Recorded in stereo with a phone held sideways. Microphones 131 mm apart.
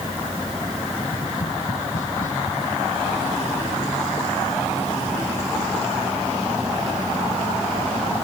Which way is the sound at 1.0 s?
80° left.